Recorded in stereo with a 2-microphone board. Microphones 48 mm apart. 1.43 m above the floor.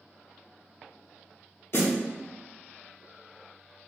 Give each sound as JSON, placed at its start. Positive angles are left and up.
{"t": 1.7, "sound": "a snare drum", "side_deg": 50, "distance_m": 0.6}